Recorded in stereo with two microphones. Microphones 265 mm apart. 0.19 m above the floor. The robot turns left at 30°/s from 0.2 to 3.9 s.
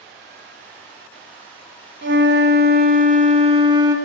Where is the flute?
105° right, 0.6 m; by 4.0 s 160° right, 0.6 m.